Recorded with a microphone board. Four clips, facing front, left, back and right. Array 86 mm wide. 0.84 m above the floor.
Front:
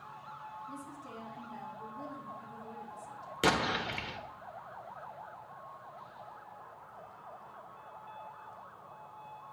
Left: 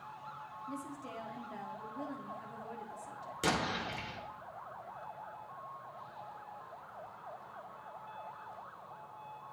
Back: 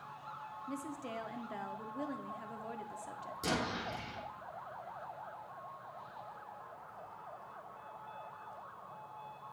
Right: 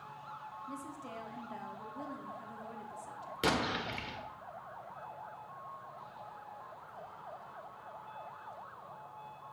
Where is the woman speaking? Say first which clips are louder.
Left 3 dB, back 3 dB; 175° left, 1.4 m.